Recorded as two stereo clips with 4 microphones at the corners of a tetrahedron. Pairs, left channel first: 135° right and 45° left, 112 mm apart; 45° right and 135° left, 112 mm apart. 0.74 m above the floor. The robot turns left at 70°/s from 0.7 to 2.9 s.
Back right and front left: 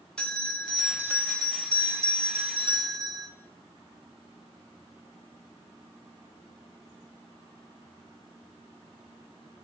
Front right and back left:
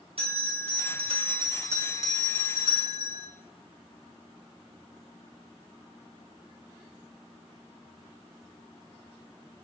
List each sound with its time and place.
0.2 s a bell: 145° left, 0.8 m; by 3.3 s 10° right, 0.8 m